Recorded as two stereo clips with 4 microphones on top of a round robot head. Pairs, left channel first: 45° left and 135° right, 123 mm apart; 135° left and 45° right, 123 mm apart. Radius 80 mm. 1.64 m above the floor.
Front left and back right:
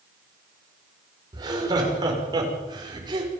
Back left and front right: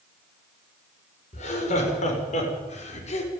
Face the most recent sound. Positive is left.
turn(degrees=170)